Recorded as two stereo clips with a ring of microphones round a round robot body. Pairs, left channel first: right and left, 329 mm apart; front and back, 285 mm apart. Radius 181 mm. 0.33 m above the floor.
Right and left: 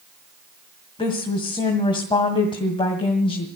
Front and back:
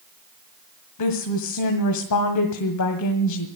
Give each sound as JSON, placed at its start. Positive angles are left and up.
{"t": 1.0, "sound": "a woman speaking", "azimuth_deg": -15, "distance_m": 2.0}